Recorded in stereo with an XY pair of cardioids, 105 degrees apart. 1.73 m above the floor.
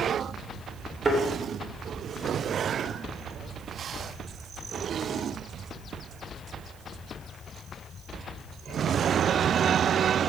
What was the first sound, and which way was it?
A thud, 25° right.